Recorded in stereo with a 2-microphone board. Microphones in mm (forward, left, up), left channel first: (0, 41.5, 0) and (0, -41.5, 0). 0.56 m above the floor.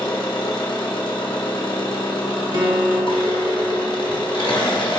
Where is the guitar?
65° right (ahead or behind), 0.6 m.